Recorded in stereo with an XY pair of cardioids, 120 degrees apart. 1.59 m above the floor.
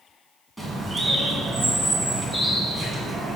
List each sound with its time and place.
0.6 s a bird: 5° left, 2 m